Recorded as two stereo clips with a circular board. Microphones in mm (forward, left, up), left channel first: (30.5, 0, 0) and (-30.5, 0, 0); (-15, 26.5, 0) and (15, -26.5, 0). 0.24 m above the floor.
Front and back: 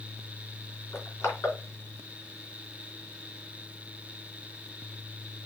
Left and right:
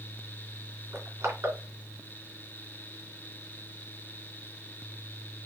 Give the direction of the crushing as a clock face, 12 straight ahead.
1 o'clock.